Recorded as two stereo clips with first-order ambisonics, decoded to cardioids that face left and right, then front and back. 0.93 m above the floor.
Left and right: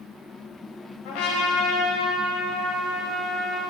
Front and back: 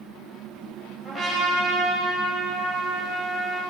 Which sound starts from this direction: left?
A trumpet, at 1.1 s.